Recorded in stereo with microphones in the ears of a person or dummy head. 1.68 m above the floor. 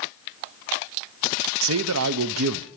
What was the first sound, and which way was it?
A man speaking, 70° right (ahead or behind).